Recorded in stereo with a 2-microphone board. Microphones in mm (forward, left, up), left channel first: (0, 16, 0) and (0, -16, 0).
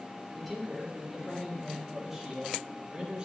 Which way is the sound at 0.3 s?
5° left (ahead or behind).